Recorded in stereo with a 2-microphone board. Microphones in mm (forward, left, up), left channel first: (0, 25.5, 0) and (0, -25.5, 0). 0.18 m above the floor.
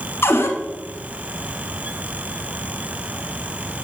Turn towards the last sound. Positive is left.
turn(degrees=55)  # may be behind; listen again after turning